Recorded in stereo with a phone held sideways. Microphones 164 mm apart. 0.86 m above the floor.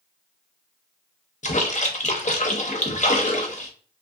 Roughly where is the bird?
I don't hear a bird.